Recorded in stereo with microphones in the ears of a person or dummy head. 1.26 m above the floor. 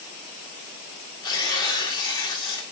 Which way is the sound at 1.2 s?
20° left (ahead or behind).